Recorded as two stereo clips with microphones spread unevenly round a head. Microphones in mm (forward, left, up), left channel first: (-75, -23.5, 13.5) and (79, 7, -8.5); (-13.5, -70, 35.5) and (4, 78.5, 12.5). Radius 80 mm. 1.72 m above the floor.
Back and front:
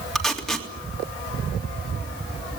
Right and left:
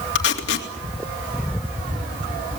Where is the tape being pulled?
85° right, 3 m.